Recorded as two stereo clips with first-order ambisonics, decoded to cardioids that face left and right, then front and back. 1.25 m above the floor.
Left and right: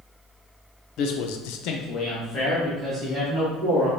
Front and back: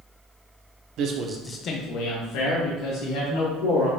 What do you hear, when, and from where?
1.0 s a man speaking: 135° left, 0.9 m; by 3.9 s 5° left, 3 m